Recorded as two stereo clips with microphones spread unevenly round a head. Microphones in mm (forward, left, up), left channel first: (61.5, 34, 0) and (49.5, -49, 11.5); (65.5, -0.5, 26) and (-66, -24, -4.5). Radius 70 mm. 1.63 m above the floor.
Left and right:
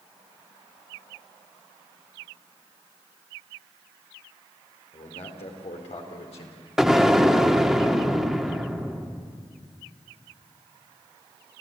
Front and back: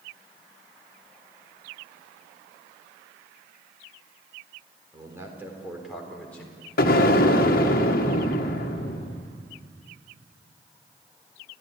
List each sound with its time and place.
4.9 s a man speaking: 120° left, 4 m; by 6.7 s 80° left, 4.5 m
6.8 s an explosion: 15° right, 1.7 m